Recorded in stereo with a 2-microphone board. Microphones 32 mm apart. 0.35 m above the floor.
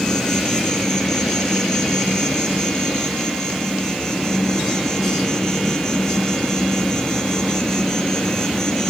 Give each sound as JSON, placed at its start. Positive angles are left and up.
{"t": 0.0, "sound": "an insect", "side_deg": 20, "distance_m": 2.5}